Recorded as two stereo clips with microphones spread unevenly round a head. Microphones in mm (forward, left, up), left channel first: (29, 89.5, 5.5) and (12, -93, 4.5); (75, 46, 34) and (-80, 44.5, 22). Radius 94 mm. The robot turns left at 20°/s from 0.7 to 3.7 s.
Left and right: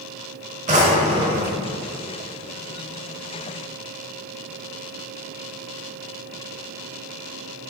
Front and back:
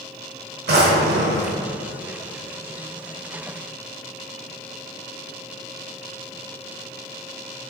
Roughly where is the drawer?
Behind right.